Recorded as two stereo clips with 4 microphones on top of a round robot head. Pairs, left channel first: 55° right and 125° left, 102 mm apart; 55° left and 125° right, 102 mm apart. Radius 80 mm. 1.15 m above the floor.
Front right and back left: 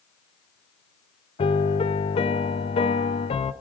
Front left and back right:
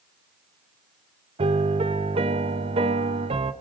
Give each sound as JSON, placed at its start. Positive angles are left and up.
{"t": 1.4, "sound": "a piano", "azimuth_deg": -90, "distance_m": 1.1}